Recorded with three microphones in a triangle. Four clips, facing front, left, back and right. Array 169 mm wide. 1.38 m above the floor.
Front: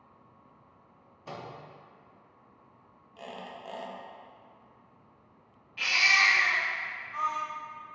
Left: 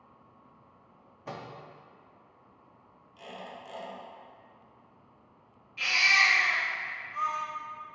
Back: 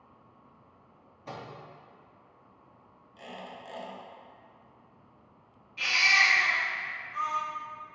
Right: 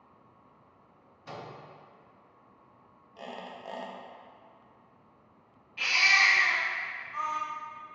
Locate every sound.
1.3 s a microwave: 85° left, 0.7 m
3.2 s a squeak: 65° right, 0.6 m
5.8 s a baby crying: 30° right, 1.5 m